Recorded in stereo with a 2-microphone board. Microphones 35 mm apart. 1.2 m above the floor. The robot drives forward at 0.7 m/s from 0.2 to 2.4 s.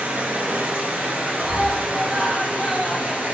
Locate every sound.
0.0 s running water: 60° right (ahead or behind), 2.5 m; by 3.3 s 55° right (ahead or behind), 2.5 m
1.4 s a scream: 25° right (ahead or behind), 1.8 m; by 3.3 s 15° right (ahead or behind), 2.5 m